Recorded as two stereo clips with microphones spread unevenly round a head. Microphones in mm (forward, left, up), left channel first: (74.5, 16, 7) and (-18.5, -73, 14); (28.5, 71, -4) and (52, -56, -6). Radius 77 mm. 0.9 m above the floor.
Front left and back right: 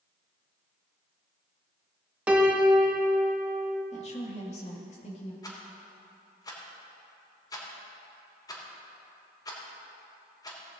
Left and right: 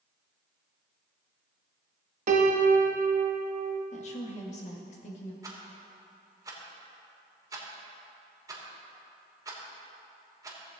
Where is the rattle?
15° right, 3 m.